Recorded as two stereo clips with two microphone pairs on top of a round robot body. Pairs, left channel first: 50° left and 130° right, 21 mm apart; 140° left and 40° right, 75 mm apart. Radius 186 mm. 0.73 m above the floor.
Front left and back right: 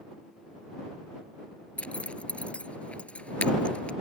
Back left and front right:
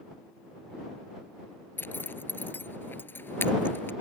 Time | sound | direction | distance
1.8 | a zipper | 80° left | ?